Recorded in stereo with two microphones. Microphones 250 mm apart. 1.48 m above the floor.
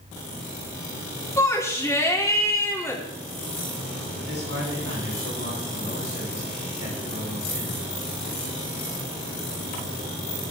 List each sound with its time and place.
1.4 s a shout: 10° left (ahead or behind), 3 m
4.2 s a man speaking: 70° right (ahead or behind), 9.5 m